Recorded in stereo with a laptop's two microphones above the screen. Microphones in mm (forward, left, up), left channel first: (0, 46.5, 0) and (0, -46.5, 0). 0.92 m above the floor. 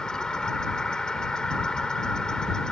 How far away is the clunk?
No clunk in this recording.